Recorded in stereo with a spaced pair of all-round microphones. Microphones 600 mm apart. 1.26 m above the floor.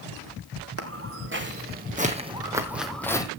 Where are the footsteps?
25° right (ahead or behind), 2.5 m; by 3.3 s 5° left (ahead or behind), 1.7 m.